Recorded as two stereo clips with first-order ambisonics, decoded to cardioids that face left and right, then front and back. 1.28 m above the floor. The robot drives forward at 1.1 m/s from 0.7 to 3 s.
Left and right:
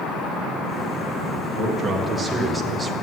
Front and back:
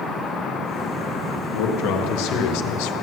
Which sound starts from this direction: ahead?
A man speaking, at 1.5 s.